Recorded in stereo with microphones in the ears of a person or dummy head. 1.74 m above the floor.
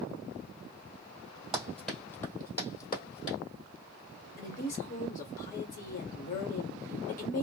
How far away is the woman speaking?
About 1.2 m.